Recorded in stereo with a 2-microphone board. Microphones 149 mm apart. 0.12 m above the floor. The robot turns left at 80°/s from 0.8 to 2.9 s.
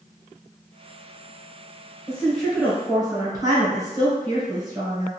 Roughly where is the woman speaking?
Ahead left.